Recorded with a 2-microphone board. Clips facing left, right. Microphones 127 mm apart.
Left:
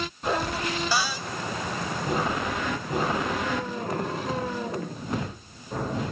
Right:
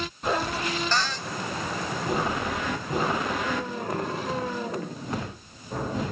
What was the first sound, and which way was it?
A cupboard door, 10° left (ahead or behind).